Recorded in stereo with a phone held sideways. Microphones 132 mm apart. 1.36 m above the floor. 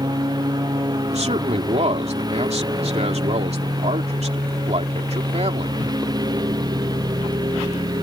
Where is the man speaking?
55° right (ahead or behind).